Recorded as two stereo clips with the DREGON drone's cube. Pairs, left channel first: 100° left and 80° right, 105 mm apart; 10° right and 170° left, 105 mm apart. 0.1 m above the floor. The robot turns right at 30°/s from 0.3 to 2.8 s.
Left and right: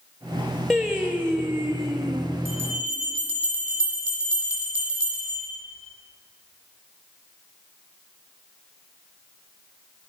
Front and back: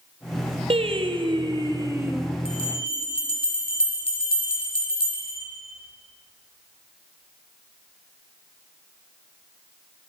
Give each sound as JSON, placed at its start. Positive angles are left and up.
{"t": 0.7, "sound": "singing", "azimuth_deg": -165, "distance_m": 0.7}
{"t": 2.5, "sound": "a bell", "azimuth_deg": -10, "distance_m": 2.5}